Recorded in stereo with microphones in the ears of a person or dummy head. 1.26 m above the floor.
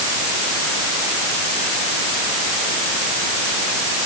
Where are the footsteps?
I don't hear footsteps.